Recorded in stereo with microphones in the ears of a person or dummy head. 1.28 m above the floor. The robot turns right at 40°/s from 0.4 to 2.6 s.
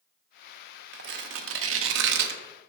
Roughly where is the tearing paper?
Right.